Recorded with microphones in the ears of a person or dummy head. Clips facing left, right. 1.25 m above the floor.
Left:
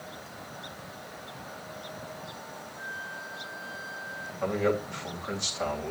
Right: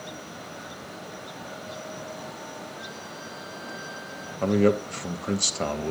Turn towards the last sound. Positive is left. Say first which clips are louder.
# right 6 dB
turn(degrees=-50)  # may be behind; listen again after turning